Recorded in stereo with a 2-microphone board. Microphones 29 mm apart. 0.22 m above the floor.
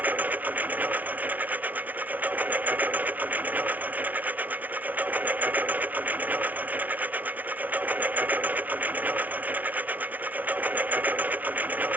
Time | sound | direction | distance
0.0 | a lawn mower | 85° right | ?